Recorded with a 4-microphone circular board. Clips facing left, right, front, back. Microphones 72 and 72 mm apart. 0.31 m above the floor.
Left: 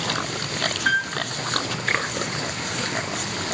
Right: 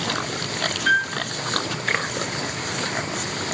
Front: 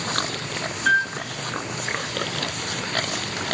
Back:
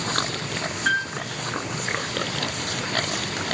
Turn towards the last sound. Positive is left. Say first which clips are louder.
# right 3 dB, front 4 dB
turn(degrees=105)